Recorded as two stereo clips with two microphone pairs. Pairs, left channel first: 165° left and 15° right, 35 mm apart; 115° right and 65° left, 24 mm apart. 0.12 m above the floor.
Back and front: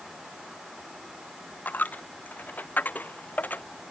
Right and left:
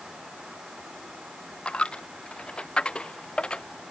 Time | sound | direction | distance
1.6 | a dropped coin | 160° right | ?